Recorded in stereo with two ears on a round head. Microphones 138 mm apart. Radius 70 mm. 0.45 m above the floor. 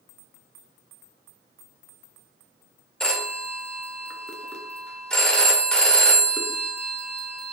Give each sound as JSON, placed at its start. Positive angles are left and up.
{"t": 3.0, "sound": "a phone ringing", "side_deg": 5, "distance_m": 0.5}